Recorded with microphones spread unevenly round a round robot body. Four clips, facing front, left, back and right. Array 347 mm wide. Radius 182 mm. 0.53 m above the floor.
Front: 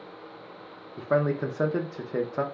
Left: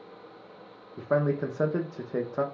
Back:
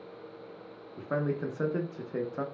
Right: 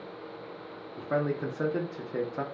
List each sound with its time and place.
1.0 s a man speaking: 15° left, 0.7 m